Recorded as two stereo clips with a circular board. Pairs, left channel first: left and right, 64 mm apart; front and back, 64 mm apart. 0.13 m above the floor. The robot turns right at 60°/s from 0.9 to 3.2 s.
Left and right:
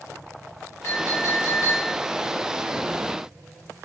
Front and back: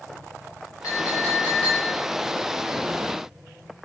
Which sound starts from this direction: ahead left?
A clink, at 0.8 s.